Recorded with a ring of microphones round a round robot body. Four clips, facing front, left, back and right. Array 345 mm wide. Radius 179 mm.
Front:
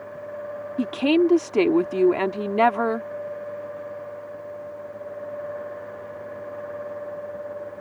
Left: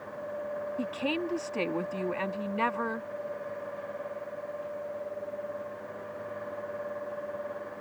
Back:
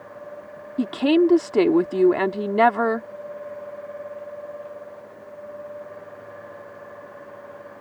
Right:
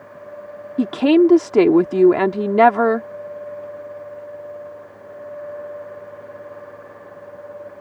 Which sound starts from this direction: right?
A woman speaking, at 0.8 s.